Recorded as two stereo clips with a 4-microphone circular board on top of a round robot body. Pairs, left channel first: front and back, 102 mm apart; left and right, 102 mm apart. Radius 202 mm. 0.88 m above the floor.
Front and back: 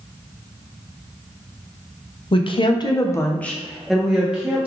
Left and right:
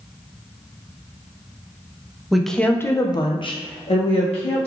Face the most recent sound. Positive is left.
turn(degrees=105)